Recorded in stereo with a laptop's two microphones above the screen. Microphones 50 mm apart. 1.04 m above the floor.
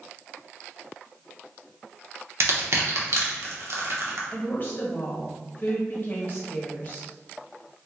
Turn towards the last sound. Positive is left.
turn(degrees=40)  # may be behind; listen again after turning